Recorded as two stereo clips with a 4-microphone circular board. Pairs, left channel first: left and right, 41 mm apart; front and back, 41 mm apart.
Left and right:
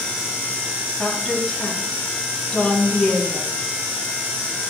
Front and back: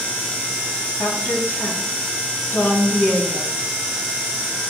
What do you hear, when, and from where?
1.0 s a woman speaking: 10° left, 3.5 m